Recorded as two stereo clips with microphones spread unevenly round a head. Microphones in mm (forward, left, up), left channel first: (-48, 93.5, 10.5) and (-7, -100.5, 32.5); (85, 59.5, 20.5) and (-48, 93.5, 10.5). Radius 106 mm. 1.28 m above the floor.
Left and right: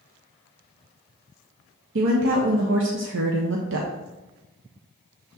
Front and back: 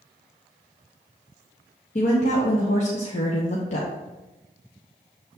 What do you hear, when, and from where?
1.9 s a woman speaking: 60° right, 0.8 m